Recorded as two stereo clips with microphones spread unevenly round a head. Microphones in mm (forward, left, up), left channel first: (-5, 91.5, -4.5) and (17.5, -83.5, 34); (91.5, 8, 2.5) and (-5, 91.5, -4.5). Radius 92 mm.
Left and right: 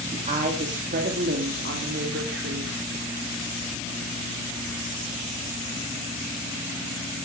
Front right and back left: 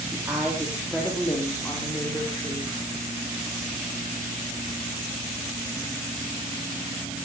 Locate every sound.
0.1 s a woman speaking: 145° right, 2 m; by 2.8 s 110° right, 3.5 m